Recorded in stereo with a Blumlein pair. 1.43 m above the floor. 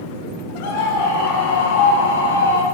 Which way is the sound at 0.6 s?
50° left.